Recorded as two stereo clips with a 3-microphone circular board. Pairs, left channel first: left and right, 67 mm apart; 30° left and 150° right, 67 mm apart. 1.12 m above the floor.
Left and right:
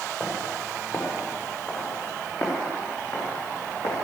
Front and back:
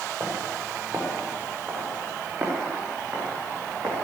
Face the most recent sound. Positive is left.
turn(degrees=130)